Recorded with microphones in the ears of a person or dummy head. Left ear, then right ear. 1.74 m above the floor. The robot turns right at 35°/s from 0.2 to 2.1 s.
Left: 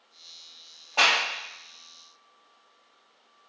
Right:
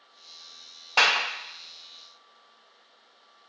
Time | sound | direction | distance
1.0 | a clap | 65° right (ahead or behind) | 0.9 m